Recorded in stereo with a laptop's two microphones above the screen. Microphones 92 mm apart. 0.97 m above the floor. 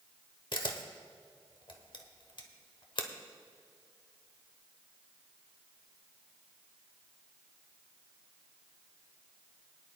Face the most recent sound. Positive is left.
turn(degrees=60)  # may be behind; listen again after turning